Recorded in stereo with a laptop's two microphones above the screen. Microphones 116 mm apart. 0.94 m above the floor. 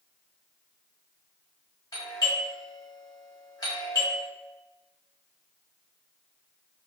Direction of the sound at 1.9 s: 30° left (ahead or behind).